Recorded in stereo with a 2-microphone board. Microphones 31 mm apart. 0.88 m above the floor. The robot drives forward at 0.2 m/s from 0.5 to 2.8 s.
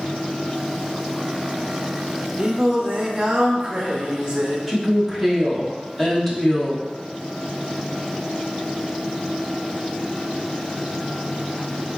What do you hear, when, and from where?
2.4 s singing: 30° right (ahead or behind), 0.7 m
4.7 s a woman speaking: centre (ahead or behind), 1.0 m